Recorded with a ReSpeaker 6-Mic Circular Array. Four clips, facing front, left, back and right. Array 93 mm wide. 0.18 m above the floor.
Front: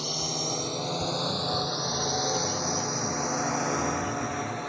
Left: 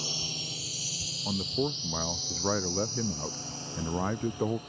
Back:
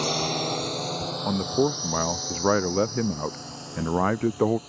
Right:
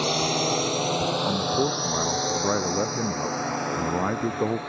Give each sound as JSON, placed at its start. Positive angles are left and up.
{"t": 0.0, "sound": "a drone", "azimuth_deg": -125}
{"t": 1.2, "sound": "a man speaking", "azimuth_deg": -160}